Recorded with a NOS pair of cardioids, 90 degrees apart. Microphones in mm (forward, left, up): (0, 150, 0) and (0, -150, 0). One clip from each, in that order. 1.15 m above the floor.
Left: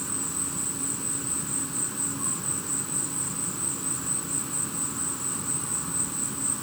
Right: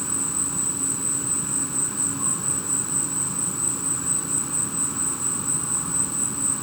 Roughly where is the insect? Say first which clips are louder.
Right 4 dB; ahead right.